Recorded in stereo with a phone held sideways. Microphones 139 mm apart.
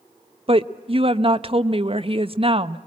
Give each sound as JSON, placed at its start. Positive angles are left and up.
{"t": 0.5, "sound": "a woman speaking", "side_deg": -40, "distance_m": 0.8}